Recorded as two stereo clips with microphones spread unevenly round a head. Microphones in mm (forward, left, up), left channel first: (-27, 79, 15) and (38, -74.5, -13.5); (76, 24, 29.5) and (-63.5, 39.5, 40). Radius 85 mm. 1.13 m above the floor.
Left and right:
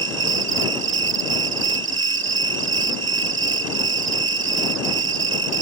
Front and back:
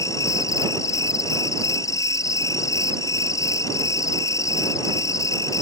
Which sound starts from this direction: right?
An insect, at 0.0 s.